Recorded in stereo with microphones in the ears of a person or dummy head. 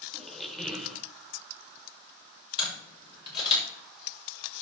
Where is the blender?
No blender in this recording.